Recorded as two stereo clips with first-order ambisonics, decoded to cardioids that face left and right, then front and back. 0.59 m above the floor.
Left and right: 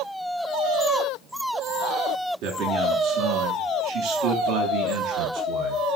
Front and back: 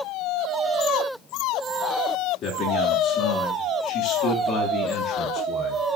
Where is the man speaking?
65° right, 7.5 m.